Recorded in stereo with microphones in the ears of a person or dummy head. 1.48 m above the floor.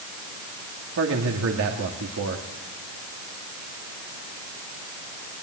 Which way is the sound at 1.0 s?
85° right.